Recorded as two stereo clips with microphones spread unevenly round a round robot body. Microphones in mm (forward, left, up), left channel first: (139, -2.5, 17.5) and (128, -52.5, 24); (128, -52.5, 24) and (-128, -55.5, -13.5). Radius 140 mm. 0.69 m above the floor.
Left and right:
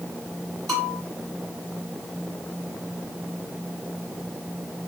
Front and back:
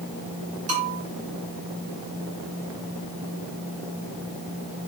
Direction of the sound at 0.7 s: 155° right.